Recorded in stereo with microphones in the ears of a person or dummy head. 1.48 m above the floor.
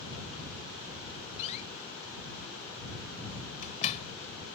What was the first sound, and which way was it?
A door slam, 35° left (ahead or behind).